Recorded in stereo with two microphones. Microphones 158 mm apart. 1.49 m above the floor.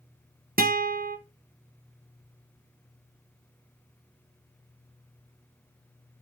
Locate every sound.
0.6 s a guitar: 65° right (ahead or behind), 0.9 m